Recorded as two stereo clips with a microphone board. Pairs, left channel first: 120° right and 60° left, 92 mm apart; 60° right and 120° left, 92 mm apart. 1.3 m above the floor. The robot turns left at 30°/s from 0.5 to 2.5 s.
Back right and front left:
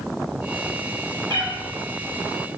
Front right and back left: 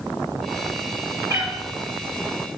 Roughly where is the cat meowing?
Left.